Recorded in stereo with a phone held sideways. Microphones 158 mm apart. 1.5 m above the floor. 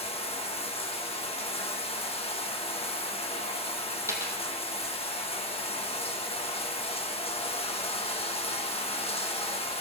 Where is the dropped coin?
20° right (ahead or behind), 2.5 m.